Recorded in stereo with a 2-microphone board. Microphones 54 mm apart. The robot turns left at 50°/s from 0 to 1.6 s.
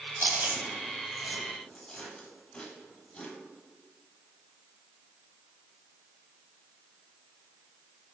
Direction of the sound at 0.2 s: 50° right (ahead or behind).